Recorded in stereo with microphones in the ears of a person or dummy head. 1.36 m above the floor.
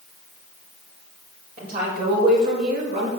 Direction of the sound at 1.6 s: 55° right (ahead or behind).